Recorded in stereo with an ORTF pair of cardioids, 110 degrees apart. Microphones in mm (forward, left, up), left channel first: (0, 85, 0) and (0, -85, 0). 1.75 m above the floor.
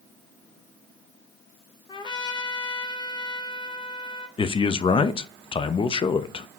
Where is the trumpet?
25° left, 1.0 m.